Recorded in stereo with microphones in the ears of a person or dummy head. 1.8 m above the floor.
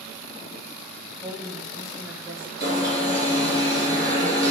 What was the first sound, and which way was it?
A woman speaking, 5° right (ahead or behind).